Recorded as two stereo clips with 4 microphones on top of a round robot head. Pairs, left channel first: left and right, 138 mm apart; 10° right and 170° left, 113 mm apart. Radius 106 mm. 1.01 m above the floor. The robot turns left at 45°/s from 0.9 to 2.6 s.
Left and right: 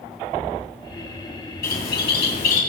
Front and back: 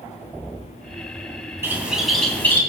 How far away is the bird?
About 2.5 m.